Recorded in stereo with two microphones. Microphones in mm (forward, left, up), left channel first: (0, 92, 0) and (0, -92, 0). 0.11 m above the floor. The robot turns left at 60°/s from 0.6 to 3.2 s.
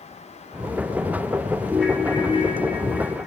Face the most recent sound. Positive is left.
turn(degrees=100)